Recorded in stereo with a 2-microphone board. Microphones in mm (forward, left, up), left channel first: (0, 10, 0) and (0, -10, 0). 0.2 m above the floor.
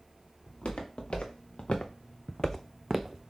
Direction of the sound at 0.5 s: 85° left.